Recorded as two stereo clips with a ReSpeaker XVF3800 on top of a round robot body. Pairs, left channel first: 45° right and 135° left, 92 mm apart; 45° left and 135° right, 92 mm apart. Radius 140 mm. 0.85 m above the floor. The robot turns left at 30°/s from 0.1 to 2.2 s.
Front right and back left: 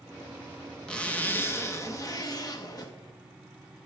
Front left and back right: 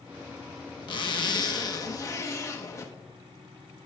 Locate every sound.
0.9 s a zipper: 35° left, 1.0 m; by 2.9 s 5° right, 1.0 m